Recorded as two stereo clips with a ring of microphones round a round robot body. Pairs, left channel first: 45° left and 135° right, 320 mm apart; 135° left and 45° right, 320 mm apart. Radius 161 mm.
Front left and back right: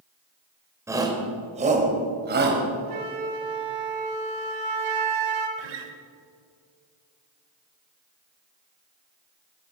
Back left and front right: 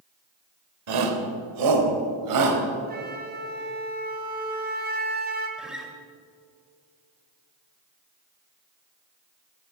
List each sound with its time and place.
0.9 s a shout: 55° right, 2.5 m; by 2.6 s 75° right, 3.5 m
2.9 s a flute: 110° right, 2 m
5.6 s a guitar: 135° right, 1.8 m